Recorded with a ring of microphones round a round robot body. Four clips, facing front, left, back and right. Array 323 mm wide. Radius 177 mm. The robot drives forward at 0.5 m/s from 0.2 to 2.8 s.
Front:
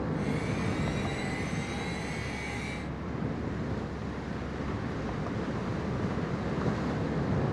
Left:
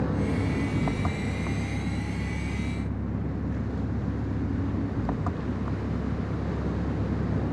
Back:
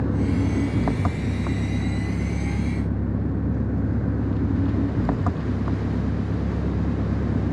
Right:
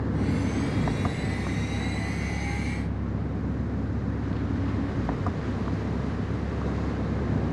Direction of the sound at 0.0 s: Straight behind.